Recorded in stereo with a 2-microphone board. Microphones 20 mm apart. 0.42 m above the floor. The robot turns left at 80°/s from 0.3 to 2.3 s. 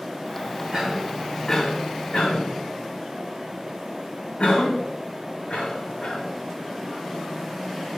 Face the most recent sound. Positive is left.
turn(degrees=75)  # may be behind; listen again after turning